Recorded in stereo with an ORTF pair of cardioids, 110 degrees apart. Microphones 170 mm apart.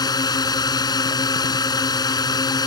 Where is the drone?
20° left.